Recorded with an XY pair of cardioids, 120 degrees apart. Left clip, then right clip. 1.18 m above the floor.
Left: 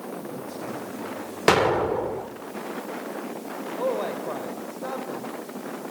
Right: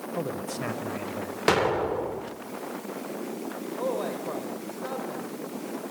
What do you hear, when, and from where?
0.2 s a man speaking: 70° right, 4.5 m
1.5 s an explosion: 20° left, 2.0 m
3.8 s a man speaking: 15° left, 6 m